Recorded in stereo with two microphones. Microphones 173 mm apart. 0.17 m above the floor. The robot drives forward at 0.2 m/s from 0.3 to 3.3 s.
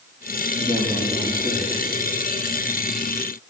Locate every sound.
0.6 s a man speaking: 15° right (ahead or behind), 5 m